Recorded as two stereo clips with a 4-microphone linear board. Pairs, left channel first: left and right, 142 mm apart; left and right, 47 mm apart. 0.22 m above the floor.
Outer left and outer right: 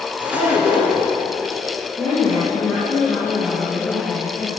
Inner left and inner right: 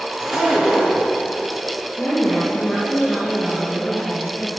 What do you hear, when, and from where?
0.2 s a zipper: 10° right (ahead or behind), 2.5 m
2.0 s a woman speaking: 5° left (ahead or behind), 4 m